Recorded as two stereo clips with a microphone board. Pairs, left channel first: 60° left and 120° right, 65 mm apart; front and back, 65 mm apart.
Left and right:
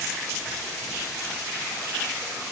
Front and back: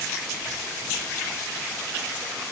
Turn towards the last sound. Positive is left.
No sound to turn to.